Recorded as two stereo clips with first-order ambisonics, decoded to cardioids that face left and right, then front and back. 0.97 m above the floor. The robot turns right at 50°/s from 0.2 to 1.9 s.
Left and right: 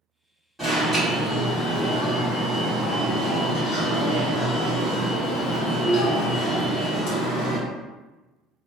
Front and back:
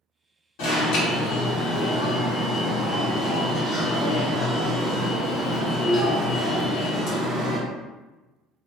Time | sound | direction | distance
0.6 | an alarm | straight ahead | 1.3 m